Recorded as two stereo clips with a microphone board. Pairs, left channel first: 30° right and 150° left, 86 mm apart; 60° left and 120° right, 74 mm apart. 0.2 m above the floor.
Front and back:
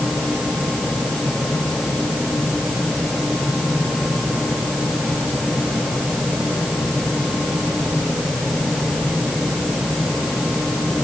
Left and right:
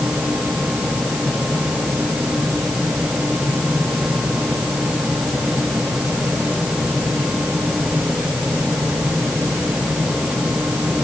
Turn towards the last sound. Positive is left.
No sound to turn to.